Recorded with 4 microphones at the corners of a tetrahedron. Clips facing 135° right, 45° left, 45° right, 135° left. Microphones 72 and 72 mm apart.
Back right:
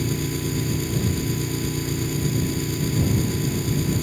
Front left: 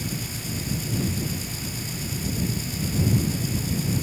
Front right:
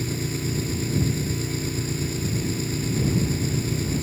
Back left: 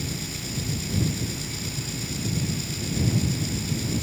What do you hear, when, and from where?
0.0 s an engine running: 100° right